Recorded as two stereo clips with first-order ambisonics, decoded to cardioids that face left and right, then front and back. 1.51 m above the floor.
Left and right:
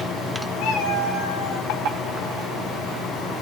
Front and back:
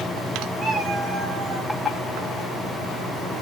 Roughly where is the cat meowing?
Left.